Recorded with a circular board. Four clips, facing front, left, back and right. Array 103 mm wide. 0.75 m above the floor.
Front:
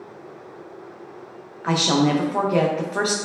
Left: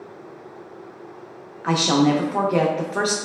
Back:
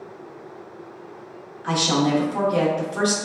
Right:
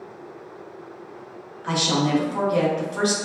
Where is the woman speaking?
50° left, 0.5 m.